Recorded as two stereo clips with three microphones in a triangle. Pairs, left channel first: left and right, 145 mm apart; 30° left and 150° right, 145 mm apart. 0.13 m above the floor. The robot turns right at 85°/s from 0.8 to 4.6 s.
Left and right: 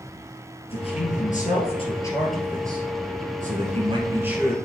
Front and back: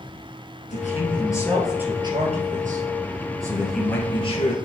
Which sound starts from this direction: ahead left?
A man speaking, at 0.7 s.